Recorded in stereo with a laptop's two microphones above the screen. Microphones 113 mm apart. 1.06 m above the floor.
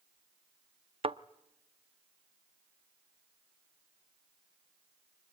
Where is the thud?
60° right (ahead or behind), 0.6 m.